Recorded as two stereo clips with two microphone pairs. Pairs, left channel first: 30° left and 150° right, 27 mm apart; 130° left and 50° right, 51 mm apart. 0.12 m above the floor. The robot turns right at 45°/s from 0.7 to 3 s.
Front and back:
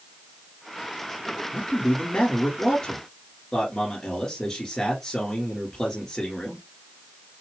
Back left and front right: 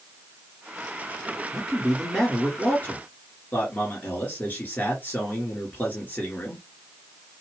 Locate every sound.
1.5 s a man speaking: 30° left, 2 m; by 6.6 s 95° left, 2 m